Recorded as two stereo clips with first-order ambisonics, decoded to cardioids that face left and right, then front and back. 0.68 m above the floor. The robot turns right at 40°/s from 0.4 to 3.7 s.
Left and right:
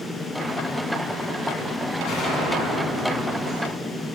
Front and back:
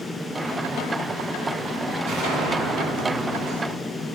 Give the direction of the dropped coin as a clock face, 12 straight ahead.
No dropped coin in this recording.